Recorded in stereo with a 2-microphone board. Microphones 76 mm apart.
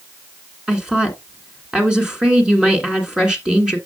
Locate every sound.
0.7 s a woman speaking: 10° right (ahead or behind), 1.6 m